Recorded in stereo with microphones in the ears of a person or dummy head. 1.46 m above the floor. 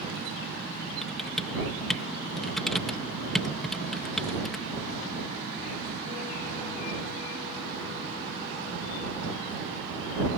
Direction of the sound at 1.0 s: 5° left (ahead or behind).